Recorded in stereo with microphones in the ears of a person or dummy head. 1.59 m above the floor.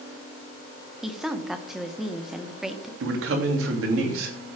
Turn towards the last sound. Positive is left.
turn(degrees=-85)